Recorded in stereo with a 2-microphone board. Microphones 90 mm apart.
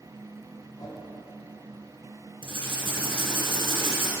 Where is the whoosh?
45° left (ahead or behind), 1.8 m.